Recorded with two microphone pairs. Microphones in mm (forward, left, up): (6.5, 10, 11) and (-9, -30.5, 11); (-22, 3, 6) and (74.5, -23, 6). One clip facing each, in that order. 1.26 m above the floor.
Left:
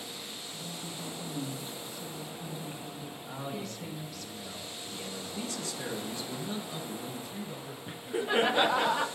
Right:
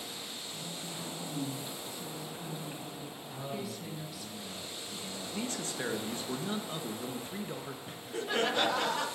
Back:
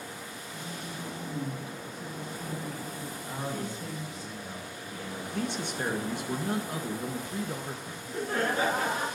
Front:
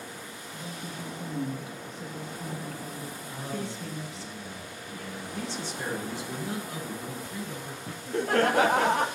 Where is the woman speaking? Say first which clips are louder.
Left 1 dB, front 1 dB; 25° right, 1.5 m.